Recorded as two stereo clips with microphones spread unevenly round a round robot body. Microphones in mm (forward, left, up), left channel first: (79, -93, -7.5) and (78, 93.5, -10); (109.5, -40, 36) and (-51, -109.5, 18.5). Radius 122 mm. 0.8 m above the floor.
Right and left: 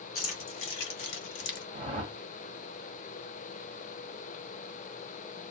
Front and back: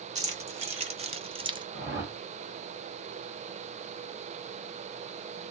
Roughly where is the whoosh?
Behind left.